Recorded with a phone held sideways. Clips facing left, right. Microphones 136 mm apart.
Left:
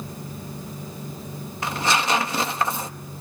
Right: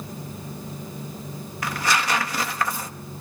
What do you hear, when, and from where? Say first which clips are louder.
1.6 s tearing paper: left 1 dB; 25° left (ahead or behind), 1.3 m